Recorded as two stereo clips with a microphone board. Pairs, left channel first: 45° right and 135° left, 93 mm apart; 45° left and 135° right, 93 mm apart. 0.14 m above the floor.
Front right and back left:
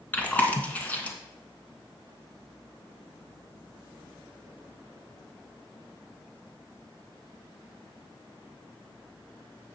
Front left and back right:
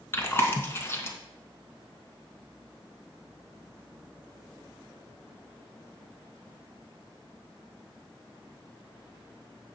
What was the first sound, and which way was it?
Chewing, 10° left.